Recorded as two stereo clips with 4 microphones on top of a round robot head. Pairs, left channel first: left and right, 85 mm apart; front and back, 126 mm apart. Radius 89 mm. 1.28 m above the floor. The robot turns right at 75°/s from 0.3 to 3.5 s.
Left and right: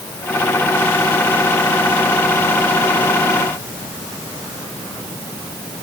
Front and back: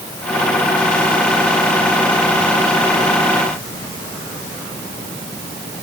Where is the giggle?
No giggle in this recording.